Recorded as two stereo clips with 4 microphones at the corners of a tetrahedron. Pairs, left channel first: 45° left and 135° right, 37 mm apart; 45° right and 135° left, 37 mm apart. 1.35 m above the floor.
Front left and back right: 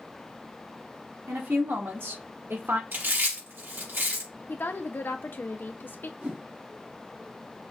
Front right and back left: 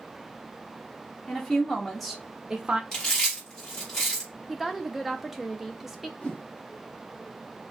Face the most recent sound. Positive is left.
turn(degrees=-100)